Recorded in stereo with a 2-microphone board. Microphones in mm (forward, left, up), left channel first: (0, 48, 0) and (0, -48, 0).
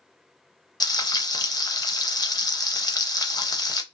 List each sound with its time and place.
0.8 s frying: 40° left (ahead or behind), 0.5 m